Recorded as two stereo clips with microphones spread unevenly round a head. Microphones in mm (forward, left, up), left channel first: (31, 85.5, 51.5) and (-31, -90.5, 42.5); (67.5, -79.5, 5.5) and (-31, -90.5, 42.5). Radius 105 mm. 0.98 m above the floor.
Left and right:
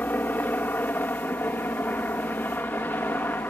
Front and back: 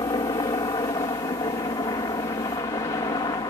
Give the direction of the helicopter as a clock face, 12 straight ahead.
12 o'clock.